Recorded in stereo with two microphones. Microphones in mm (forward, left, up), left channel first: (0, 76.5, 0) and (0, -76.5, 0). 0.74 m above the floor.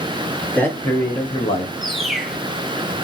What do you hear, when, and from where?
0.4 s a man speaking: 5° left (ahead or behind), 1.5 m; by 1.7 s 40° left (ahead or behind), 1.6 m
1.8 s a bird: centre (ahead or behind), 0.8 m